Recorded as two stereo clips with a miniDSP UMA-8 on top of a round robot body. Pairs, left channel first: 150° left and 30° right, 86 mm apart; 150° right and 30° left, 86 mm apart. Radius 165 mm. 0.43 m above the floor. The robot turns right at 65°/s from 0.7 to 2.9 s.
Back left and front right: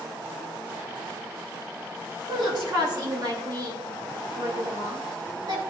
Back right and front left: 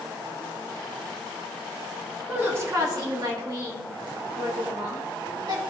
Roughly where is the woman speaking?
Ahead right.